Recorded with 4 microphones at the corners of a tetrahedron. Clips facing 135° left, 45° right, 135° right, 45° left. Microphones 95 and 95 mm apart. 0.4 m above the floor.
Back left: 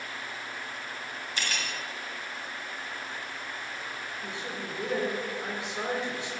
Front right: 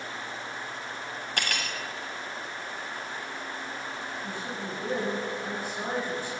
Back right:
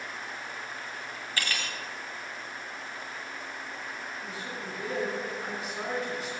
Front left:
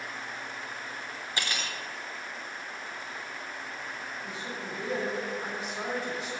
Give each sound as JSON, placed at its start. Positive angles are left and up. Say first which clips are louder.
{"t": 1.4, "sound": "cutlery clinking", "louder": "front right 2 dB, even", "azimuth_deg": -25, "distance_m": 1.5}
{"t": 4.2, "sound": "a man speaking", "louder": "front right 2 dB, even", "azimuth_deg": 135, "distance_m": 3.5}